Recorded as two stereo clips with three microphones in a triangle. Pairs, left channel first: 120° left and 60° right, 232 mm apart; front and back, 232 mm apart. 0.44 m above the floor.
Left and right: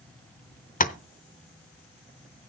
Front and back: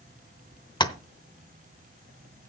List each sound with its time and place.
0.8 s tapping: 70° left, 0.8 m